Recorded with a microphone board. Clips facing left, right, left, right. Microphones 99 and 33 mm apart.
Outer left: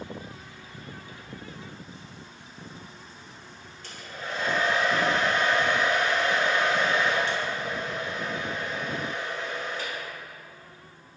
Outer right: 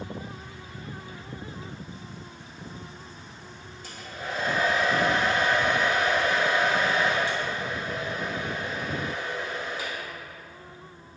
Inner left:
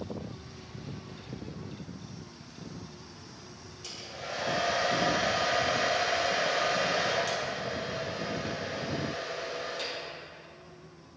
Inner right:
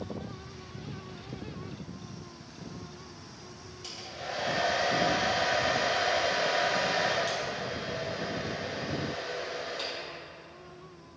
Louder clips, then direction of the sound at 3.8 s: Outer right 1 dB, inner right 1 dB; 10° right (ahead or behind).